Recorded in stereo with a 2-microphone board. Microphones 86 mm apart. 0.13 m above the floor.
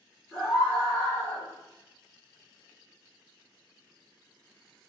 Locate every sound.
0.3 s a scream: 5° left (ahead or behind), 1.8 m; by 1.5 s 20° left (ahead or behind), 2 m